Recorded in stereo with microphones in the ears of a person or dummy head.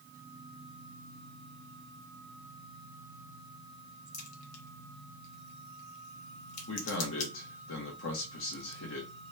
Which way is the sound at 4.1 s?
40° left (ahead or behind).